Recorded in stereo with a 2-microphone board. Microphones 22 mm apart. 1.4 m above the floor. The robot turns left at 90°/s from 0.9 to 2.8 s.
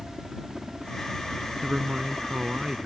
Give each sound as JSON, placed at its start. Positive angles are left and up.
{"t": 0.0, "sound": "a helicopter", "azimuth_deg": -30}
{"t": 1.6, "sound": "a man speaking", "azimuth_deg": -30}